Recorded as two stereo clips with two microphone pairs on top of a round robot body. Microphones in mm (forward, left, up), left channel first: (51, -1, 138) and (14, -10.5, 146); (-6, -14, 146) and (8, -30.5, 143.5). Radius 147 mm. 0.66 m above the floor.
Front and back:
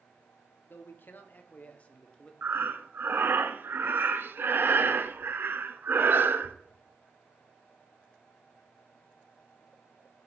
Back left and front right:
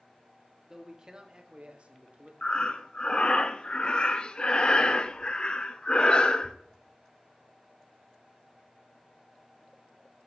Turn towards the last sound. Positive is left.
turn(degrees=180)